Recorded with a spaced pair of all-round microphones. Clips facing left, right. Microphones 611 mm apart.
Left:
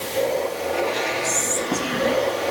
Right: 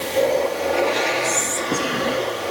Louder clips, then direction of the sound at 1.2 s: Right 1 dB; 5° left (ahead or behind).